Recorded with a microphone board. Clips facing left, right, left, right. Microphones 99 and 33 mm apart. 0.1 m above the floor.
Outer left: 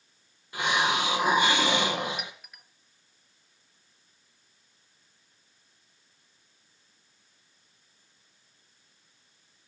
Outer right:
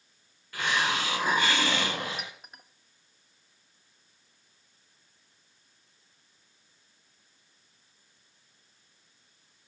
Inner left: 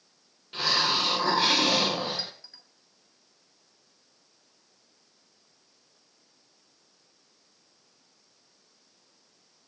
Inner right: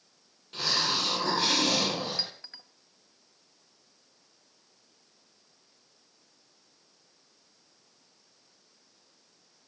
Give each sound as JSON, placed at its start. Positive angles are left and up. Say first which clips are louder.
{"t": 0.5, "sound": "a hiss", "louder": "outer left 3 dB, inner left 3 dB", "side_deg": 20, "distance_m": 2.5}
{"t": 2.2, "sound": "a clink", "louder": "outer left 1 dB, inner right 2 dB", "side_deg": -35, "distance_m": 1.1}